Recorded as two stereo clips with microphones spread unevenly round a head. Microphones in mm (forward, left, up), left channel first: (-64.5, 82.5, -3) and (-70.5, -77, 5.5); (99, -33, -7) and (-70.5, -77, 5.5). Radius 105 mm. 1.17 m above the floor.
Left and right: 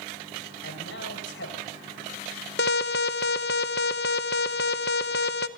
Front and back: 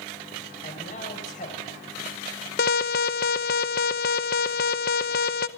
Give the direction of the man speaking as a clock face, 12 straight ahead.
10 o'clock.